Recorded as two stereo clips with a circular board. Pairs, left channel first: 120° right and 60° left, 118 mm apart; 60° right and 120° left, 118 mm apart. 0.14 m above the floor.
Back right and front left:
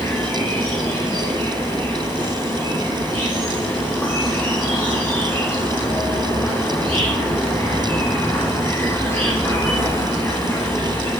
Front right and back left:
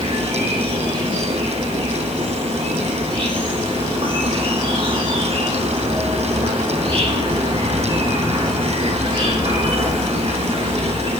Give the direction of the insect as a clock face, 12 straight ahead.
6 o'clock.